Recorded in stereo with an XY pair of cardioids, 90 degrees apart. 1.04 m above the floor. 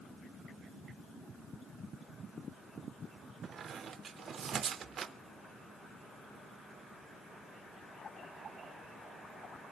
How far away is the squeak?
About 0.5 m.